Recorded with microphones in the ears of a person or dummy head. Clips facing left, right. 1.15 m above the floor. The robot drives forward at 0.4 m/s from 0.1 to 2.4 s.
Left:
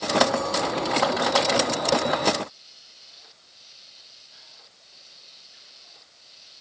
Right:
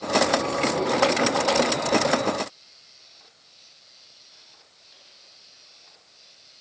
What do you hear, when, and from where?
Only background noise.